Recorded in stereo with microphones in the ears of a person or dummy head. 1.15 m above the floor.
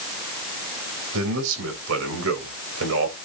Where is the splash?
No splash in this recording.